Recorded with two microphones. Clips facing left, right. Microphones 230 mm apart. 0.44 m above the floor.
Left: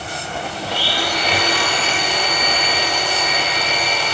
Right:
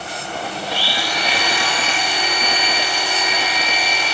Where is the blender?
55° left (ahead or behind), 1.9 m.